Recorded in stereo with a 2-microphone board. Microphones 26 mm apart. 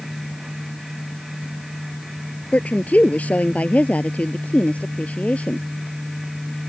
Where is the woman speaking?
70° left (ahead or behind); by 5.7 s 60° left (ahead or behind).